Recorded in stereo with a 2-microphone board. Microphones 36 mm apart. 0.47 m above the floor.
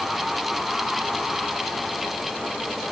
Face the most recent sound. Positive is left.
No sound to turn to.